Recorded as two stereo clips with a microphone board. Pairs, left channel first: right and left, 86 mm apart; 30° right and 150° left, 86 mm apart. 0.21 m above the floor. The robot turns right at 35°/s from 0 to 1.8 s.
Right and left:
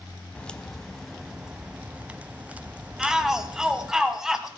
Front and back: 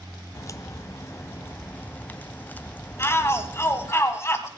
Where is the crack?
25° right, 0.5 m; by 3.9 s 25° left, 0.5 m.